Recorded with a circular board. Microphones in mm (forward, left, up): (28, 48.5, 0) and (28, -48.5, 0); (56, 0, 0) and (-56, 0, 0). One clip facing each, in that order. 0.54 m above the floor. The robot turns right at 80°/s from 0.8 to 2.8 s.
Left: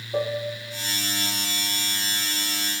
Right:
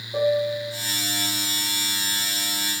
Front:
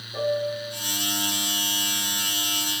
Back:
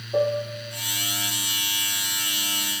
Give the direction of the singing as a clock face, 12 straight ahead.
No singing in this recording.